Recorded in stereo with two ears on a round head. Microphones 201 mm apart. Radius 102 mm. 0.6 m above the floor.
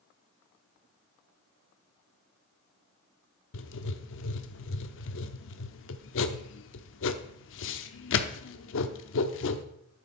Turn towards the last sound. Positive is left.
turn(degrees=60)  # may be behind; listen again after turning